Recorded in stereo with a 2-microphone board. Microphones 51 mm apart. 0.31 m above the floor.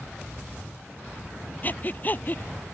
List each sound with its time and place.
1.6 s breathing: 35° left (ahead or behind)